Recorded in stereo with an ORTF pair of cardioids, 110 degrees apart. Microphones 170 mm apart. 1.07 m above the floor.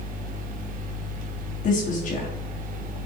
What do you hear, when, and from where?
0.0 s a fan: 55° right, 0.8 m
1.6 s a woman speaking: 50° left, 1.7 m